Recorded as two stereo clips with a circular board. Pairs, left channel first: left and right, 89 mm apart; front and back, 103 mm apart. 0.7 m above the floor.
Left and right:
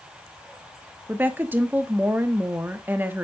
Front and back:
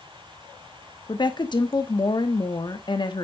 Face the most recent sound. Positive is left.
turn(degrees=-25)